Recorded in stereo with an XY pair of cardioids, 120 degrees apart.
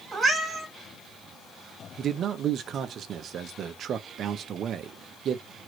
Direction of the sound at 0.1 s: 30° right.